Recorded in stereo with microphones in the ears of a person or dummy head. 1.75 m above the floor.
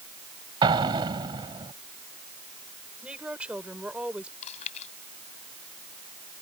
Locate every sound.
0.6 s an explosion: 15° right (ahead or behind)
3.0 s a woman speaking: 5° left (ahead or behind)
4.4 s chewing: 50° left (ahead or behind)